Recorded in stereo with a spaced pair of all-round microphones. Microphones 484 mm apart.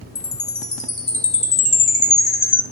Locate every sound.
0.1 s a chime: 70° left (ahead or behind), 1.9 m